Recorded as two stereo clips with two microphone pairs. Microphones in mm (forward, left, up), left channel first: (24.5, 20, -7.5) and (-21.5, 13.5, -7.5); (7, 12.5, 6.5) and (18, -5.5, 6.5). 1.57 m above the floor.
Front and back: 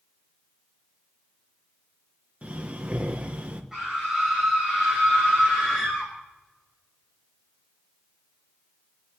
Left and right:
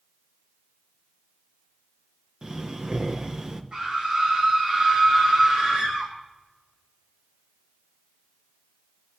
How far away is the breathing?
About 1.3 m.